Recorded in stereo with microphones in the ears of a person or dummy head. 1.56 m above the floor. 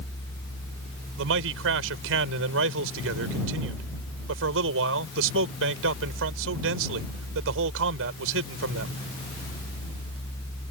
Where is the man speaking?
75° right (ahead or behind).